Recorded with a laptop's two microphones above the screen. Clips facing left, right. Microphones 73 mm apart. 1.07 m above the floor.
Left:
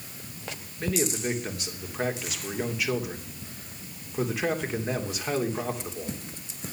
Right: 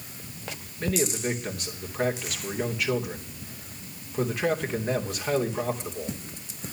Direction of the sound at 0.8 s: 5° left (ahead or behind).